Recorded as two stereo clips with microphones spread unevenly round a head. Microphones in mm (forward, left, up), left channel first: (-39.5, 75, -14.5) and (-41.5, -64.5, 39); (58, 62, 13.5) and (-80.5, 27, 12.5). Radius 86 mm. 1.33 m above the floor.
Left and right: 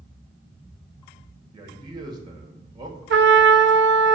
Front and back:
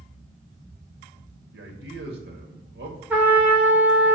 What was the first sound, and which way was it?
A man speaking, 150° right.